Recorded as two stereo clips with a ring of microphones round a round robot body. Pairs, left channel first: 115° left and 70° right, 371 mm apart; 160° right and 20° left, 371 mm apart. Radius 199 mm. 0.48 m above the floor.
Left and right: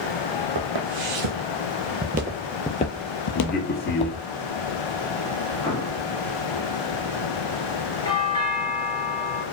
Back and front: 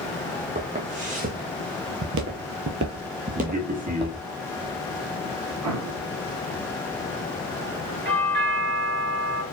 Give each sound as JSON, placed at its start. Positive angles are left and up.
{"t": 0.6, "sound": "footsteps", "azimuth_deg": -50, "distance_m": 1.1}
{"t": 3.4, "sound": "a man speaking", "azimuth_deg": 70, "distance_m": 0.9}
{"t": 5.6, "sound": "an explosion", "azimuth_deg": 40, "distance_m": 1.8}
{"t": 8.1, "sound": "a doorbell", "azimuth_deg": 50, "distance_m": 1.7}